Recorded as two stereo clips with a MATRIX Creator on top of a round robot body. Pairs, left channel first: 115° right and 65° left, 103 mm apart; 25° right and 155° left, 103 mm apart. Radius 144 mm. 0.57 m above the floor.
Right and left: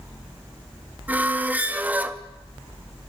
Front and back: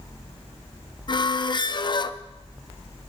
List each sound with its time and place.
1.1 s a squeak: straight ahead, 0.8 m